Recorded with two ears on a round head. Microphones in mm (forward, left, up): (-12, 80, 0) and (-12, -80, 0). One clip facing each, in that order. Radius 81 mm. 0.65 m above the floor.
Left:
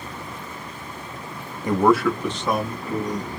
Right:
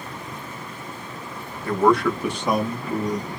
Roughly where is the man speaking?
Centre.